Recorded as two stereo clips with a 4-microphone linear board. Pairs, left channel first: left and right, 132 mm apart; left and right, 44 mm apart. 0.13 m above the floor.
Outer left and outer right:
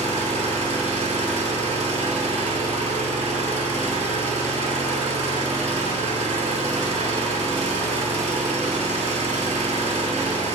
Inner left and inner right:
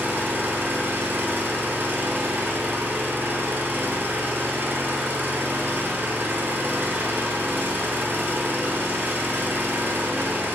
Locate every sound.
0.0 s an engine running: 55° right (ahead or behind), 0.7 m